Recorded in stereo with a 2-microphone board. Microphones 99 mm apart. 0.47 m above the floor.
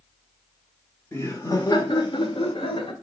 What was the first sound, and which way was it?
Laughter, 25° left (ahead or behind).